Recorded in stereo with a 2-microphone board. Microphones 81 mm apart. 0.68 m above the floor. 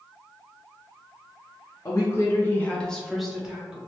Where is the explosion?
No explosion in this recording.